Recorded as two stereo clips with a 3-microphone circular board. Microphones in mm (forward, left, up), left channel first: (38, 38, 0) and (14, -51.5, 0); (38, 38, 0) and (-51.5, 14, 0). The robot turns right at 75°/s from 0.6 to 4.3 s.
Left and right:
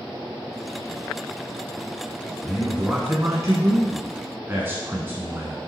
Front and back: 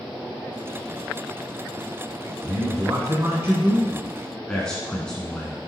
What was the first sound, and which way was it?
A man speaking, 160° left.